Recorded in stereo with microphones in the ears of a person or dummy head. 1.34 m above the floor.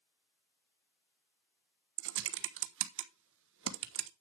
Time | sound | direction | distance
2.0 | typing on a keyboard | 65° right (ahead or behind) | 1.0 m